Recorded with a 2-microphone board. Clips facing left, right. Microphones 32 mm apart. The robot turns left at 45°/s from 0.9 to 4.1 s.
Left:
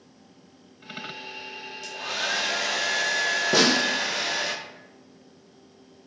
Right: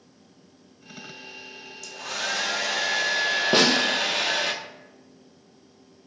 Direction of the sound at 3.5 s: 50° right (ahead or behind).